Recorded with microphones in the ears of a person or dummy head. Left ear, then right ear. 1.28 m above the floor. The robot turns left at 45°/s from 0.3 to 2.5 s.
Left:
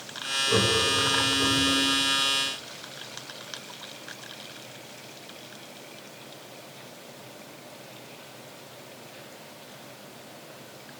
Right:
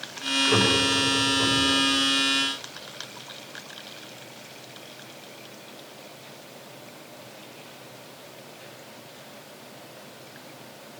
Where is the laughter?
45° right (ahead or behind), 5 m; by 1.8 s 75° right (ahead or behind), 5 m.